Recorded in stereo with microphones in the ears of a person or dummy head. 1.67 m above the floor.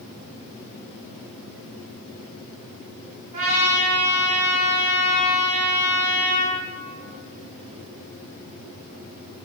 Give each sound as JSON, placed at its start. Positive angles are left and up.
{"t": 3.3, "sound": "a trumpet", "side_deg": -35, "distance_m": 1.1}